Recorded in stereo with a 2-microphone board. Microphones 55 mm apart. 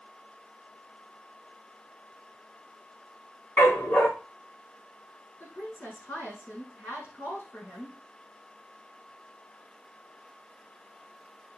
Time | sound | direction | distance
3.6 | a dog barking | 35° left (ahead or behind) | 3 m
5.4 | a woman speaking | 40° left (ahead or behind) | 5 m